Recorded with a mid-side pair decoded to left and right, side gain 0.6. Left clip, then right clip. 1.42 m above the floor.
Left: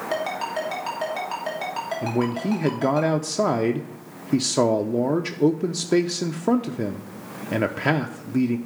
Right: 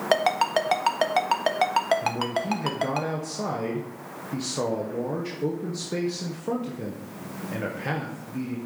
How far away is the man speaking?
About 0.7 m.